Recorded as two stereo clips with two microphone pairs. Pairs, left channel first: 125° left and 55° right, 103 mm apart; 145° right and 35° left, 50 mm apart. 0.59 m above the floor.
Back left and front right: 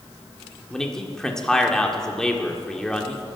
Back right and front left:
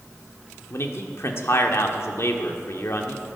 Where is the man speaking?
150° right, 1.6 m.